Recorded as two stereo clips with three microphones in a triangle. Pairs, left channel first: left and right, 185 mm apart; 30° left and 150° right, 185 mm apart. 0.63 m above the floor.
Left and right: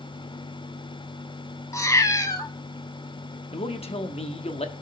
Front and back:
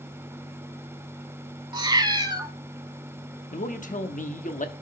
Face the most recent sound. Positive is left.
turn(degrees=50)